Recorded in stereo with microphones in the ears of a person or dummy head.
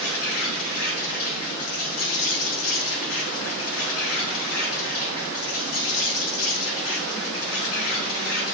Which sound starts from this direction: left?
An insect, at 0.0 s.